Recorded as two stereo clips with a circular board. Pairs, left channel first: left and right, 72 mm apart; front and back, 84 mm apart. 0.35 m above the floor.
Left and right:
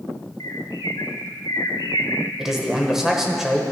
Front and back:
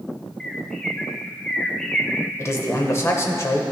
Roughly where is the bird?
Left.